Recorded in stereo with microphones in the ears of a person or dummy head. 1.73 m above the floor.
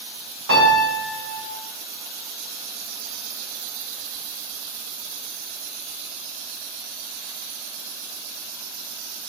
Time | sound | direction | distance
0.5 | a piano | 65° right (ahead or behind) | 6.5 m